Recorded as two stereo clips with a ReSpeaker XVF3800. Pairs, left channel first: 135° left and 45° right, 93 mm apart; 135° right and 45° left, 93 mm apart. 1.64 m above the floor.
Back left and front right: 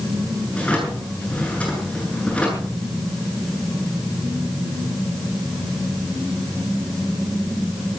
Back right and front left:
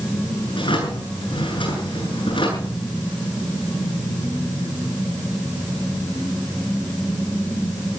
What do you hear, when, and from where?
0.5 s a drawer: 150° right, 9 m